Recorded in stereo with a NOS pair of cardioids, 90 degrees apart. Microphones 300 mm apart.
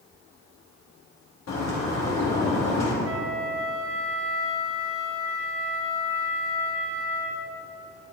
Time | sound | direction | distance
1.5 | a bird | 60° left | 2.5 m
3.0 | a flute | 40° right | 1.3 m